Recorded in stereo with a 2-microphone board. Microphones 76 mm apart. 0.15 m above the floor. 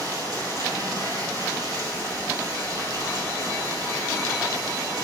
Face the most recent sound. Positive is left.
turn(degrees=-50)  # may be behind; listen again after turning